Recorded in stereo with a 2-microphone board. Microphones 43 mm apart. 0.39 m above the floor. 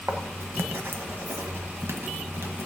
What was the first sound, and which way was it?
Writing, 75° right (ahead or behind).